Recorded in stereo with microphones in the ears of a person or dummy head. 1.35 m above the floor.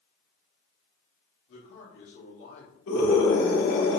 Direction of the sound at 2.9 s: 80° left.